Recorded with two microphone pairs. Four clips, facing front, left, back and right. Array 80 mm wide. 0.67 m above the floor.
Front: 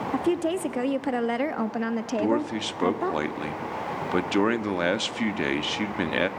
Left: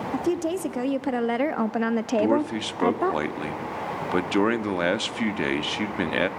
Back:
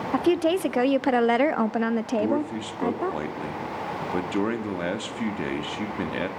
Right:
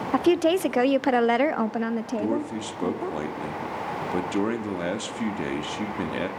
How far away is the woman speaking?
About 1.2 m.